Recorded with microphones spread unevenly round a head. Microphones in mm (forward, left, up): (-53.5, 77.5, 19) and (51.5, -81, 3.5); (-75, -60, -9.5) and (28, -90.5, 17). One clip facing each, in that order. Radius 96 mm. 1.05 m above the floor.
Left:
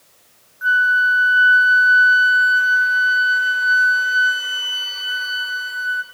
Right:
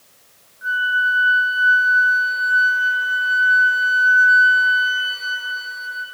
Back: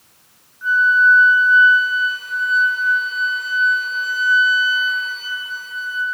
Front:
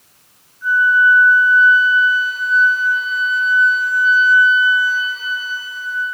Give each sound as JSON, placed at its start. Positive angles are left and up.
{"t": 0.6, "sound": "a flute", "azimuth_deg": 135, "distance_m": 0.7}